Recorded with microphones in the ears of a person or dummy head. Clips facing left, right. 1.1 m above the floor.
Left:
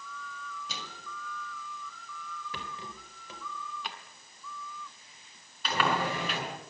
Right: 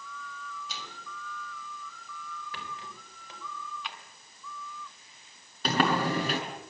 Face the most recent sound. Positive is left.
turn(degrees=-35)  # may be behind; listen again after turning